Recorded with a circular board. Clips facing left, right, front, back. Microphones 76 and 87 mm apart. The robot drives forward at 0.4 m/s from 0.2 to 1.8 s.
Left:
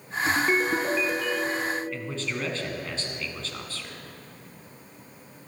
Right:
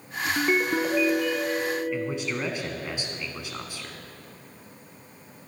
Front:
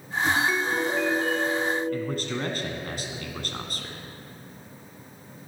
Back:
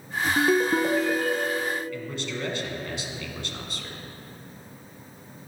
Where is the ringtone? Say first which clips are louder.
Right 2 dB, back 4 dB; 170° right, 0.8 m; by 1.8 s 175° right, 1.3 m.